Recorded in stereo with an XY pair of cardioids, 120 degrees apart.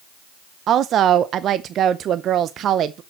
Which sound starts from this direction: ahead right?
A woman speaking, at 0.7 s.